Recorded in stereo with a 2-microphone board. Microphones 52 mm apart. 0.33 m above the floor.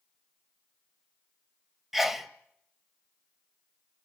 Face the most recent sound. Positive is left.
turn(degrees=-5)  # may be behind; listen again after turning